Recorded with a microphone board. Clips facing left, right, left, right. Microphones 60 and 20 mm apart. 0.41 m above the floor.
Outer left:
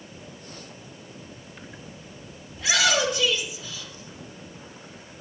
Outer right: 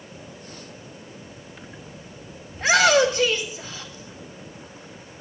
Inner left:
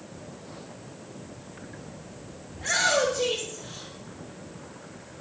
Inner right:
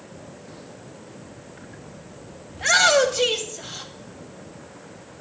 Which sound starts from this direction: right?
A shout, at 2.5 s.